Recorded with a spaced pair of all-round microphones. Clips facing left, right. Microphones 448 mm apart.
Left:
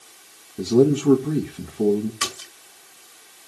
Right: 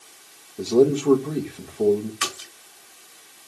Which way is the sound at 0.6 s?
30° left (ahead or behind).